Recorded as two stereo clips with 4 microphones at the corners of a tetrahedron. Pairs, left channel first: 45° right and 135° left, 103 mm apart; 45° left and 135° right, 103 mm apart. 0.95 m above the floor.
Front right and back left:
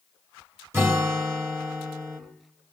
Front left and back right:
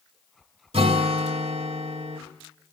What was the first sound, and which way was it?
A guitar, 160° right.